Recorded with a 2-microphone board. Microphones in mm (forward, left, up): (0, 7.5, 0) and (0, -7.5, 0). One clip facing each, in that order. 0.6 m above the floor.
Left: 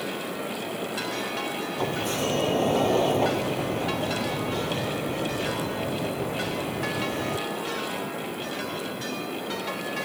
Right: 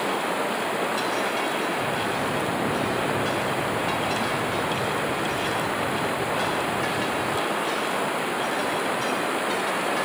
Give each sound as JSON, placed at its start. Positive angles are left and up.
{"t": 0.0, "sound": "running water", "side_deg": -70}
{"t": 1.8, "sound": "a sliding door", "side_deg": 85}